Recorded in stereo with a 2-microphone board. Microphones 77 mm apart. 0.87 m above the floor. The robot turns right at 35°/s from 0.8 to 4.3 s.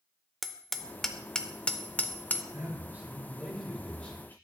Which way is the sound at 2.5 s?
40° right.